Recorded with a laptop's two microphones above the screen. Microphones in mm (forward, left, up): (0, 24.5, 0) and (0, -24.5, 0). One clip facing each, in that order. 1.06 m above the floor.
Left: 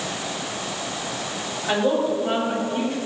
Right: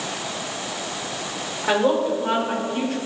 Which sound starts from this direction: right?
A woman speaking, at 1.6 s.